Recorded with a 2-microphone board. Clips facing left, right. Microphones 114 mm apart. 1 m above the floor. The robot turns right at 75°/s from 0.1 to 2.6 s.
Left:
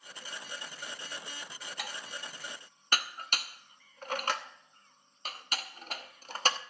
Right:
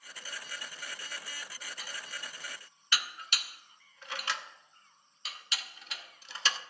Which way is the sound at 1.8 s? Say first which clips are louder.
Left 4 dB; 70° left (ahead or behind).